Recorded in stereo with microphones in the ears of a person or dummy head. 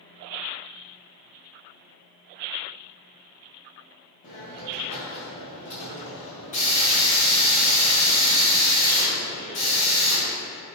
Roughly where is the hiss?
Left.